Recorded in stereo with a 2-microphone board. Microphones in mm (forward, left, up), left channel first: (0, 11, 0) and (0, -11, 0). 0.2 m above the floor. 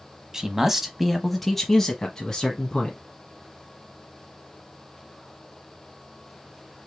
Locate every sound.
0.3 s a man speaking: 25° right (ahead or behind), 1.0 m; by 3.0 s 35° left (ahead or behind), 1.7 m